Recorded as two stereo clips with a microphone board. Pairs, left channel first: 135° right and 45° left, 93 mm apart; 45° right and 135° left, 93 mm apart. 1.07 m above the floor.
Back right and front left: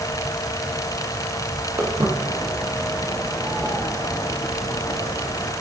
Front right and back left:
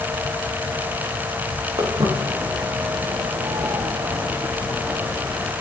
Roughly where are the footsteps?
Left.